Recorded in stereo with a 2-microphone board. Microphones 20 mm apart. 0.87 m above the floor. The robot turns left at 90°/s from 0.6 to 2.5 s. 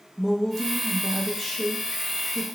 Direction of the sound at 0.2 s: 20° left (ahead or behind).